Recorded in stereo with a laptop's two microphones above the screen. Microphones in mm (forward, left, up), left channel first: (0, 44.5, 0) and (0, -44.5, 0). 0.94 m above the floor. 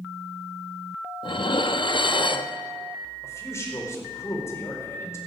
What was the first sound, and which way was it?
Dishes clattering, 65° left (ahead or behind).